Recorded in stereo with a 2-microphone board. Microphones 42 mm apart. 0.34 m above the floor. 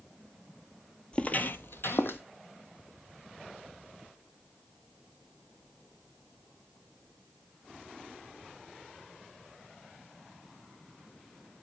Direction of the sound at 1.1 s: 25° left (ahead or behind).